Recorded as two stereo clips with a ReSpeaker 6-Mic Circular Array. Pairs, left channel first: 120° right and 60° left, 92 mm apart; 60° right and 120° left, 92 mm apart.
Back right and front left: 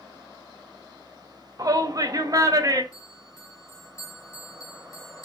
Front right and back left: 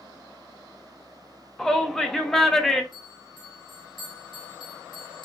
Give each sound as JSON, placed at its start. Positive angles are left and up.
{"t": 1.6, "sound": "a shout", "azimuth_deg": 25, "distance_m": 0.7}
{"t": 2.9, "sound": "a bell", "azimuth_deg": -75, "distance_m": 2.0}